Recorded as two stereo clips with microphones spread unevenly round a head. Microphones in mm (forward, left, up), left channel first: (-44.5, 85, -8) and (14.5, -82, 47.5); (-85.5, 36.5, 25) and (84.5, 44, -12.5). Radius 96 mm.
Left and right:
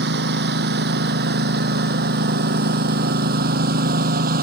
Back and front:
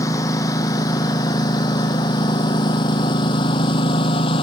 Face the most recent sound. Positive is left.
turn(degrees=-110)